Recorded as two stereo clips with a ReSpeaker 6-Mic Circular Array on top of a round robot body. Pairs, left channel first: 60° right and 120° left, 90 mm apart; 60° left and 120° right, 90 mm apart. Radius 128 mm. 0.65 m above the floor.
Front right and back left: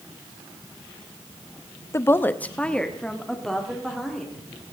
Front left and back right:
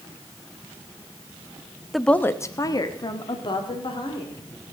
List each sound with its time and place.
1.9 s a woman speaking: 30° right, 0.7 m; by 4.4 s 30° left, 2.5 m